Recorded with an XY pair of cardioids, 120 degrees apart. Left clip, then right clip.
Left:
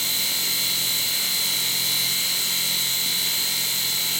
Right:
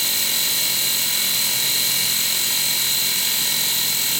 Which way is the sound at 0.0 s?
40° right.